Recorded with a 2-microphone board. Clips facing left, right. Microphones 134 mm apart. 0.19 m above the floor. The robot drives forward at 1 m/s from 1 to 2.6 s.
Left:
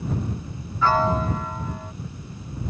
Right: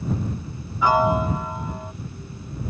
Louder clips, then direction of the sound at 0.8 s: Right 2 dB; 15° right (ahead or behind).